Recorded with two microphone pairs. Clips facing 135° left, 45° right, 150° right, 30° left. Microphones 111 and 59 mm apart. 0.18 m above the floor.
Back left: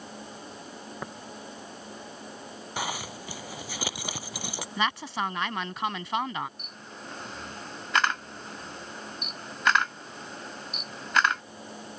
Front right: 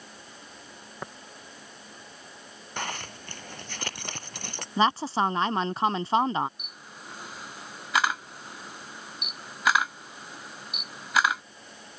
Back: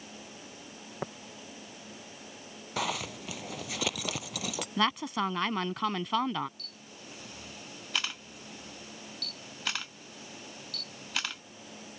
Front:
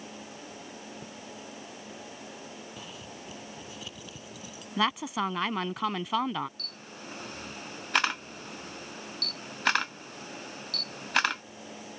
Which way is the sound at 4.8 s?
55° right.